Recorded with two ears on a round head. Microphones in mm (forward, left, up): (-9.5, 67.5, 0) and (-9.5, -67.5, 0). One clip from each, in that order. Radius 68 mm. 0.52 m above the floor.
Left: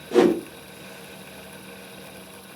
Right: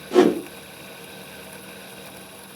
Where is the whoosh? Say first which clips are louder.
Right 1 dB; 5° right (ahead or behind), 1.2 m.